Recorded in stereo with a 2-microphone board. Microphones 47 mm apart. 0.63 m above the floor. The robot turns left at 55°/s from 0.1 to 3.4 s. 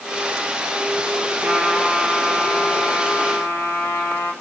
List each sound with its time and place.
1.4 s a trumpet: 160° right, 6.5 m; by 4.3 s 95° left, 6.5 m